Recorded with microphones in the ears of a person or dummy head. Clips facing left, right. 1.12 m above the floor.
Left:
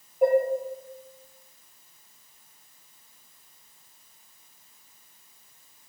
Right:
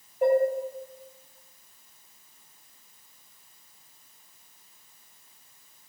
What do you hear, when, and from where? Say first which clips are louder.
0.2 s dishes clattering: left 1 dB; 10° left (ahead or behind), 0.7 m